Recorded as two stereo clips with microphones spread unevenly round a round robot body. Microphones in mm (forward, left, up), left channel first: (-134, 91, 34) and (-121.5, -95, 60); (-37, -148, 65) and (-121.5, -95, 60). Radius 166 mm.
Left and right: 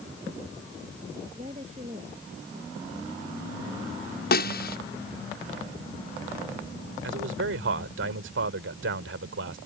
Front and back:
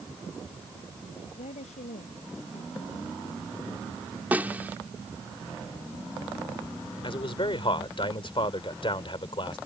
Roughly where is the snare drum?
Left.